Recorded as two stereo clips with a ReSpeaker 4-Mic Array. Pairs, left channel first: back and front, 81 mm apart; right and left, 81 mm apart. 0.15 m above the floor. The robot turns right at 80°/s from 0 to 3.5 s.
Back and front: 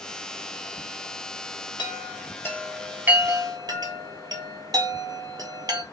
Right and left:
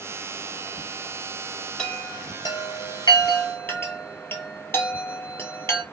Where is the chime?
170° right, 0.7 m; by 5.8 s 30° right, 0.7 m.